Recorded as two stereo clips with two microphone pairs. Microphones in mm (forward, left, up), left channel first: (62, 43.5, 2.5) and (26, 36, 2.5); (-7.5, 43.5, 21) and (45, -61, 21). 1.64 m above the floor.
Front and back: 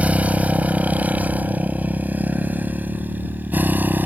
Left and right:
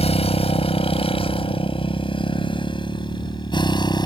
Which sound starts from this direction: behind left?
A motorcycle, at 0.0 s.